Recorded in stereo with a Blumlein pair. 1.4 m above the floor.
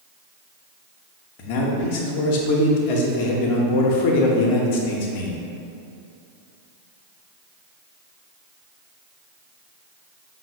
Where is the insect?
I don't hear an insect.